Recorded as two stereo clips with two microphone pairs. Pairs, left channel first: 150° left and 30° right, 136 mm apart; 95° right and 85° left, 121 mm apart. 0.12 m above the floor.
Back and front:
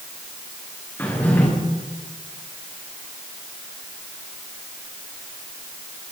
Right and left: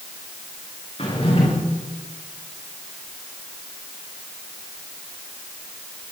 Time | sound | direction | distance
1.0 | a drawer | 135° right | 9 m